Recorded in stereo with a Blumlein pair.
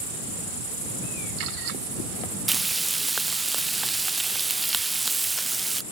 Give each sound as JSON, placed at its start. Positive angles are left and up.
{"t": 2.5, "sound": "frying", "azimuth_deg": -10}